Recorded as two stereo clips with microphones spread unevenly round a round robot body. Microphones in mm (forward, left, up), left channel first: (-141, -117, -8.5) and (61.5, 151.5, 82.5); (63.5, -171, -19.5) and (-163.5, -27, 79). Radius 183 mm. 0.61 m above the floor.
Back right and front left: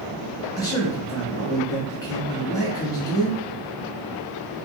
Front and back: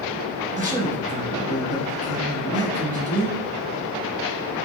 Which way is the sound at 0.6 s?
105° right.